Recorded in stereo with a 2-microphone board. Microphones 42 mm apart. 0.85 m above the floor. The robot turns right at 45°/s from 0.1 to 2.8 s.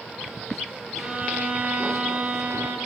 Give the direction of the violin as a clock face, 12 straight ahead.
5 o'clock.